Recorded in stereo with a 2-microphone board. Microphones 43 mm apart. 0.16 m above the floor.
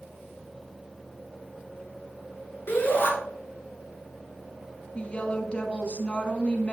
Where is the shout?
55° left (ahead or behind), 3 m.